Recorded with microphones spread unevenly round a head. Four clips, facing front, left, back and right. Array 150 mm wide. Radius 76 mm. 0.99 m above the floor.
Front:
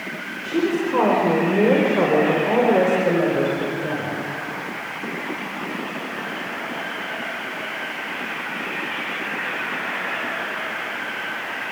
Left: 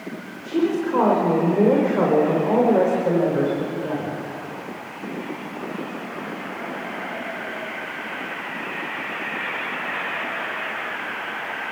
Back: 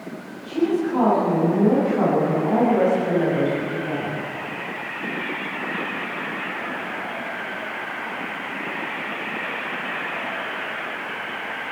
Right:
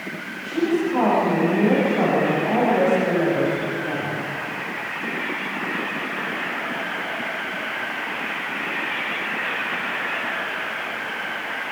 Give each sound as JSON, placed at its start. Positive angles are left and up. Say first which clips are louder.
{"t": 0.4, "sound": "a woman speaking", "louder": "even, even", "azimuth_deg": 35, "distance_m": 4.5}